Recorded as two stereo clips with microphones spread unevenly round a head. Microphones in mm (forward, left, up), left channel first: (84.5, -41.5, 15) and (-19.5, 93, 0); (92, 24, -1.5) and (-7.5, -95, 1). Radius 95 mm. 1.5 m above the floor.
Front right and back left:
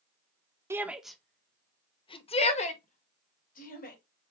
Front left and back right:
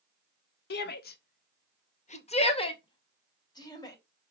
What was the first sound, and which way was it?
A shout, 50° left.